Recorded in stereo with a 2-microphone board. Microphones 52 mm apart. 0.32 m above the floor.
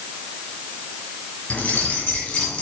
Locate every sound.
1.5 s keys jangling: 30° left (ahead or behind), 1.5 m; by 2.6 s 20° left (ahead or behind), 2 m